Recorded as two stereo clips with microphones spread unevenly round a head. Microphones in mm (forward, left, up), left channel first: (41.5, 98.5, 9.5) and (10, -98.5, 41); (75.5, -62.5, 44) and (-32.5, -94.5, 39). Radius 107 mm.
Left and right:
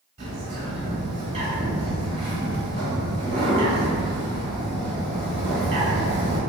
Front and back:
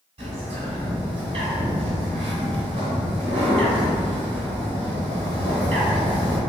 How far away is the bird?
About 1.5 m.